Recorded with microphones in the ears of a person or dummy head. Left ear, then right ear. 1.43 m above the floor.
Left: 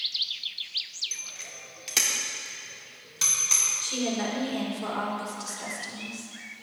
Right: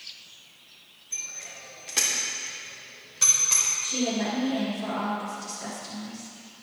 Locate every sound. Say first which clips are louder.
1.1 s a bicycle bell: right 1 dB; 40° left (ahead or behind), 2 m; by 3.7 s 15° left (ahead or behind), 4 m
3.8 s a woman speaking: right 1 dB; 70° left (ahead or behind), 5.5 m